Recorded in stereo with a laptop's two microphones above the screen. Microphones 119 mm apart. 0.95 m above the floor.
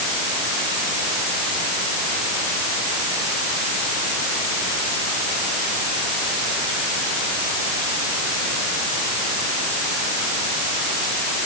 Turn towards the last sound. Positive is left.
No sound to turn to.